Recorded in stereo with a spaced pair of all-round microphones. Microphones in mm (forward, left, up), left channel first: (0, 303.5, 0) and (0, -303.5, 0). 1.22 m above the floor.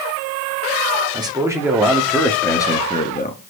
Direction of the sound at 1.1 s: 5° right (ahead or behind).